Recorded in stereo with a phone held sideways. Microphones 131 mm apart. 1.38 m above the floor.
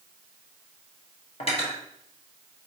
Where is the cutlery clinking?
45° left (ahead or behind), 1.1 m.